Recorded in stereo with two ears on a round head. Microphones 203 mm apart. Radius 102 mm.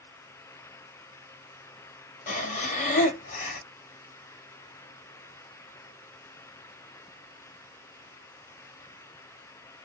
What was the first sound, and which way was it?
Breathing, 35° left (ahead or behind).